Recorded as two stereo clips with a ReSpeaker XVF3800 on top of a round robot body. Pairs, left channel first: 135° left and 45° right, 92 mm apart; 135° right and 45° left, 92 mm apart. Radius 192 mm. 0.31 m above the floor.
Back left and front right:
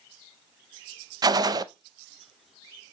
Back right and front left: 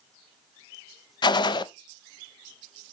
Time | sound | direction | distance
1.2 | a gunshot | 95° right | 0.5 m